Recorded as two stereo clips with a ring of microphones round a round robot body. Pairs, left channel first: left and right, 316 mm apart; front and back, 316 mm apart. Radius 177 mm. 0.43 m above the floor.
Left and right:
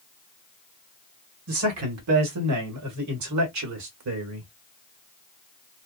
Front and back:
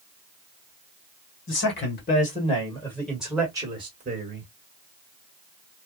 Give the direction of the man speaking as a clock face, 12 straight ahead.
2 o'clock.